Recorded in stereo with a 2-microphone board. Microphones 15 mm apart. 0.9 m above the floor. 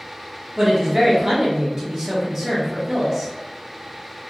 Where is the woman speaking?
25° right (ahead or behind), 1.0 m.